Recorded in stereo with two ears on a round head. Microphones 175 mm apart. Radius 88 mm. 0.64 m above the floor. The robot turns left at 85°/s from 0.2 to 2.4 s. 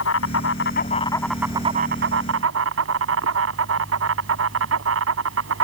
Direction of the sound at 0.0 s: 95° left.